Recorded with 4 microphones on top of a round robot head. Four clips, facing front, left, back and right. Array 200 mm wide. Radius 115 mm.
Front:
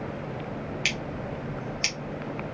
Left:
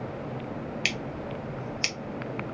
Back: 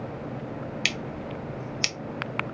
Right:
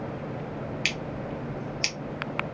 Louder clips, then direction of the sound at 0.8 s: Right 1 dB, even; straight behind.